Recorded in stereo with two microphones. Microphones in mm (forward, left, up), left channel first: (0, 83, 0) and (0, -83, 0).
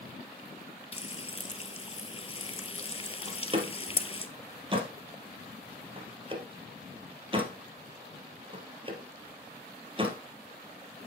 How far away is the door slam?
About 1.7 m.